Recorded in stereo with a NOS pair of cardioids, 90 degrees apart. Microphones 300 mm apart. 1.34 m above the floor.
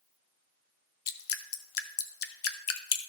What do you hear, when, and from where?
1.1 s dripping: 55° left, 0.8 m